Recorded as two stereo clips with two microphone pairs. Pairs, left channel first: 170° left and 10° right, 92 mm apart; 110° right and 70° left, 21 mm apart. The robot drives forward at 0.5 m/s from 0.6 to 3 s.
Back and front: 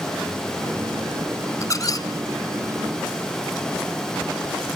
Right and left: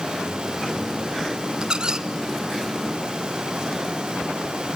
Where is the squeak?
115° left, 1.0 m; by 2.1 s 125° left, 1.1 m.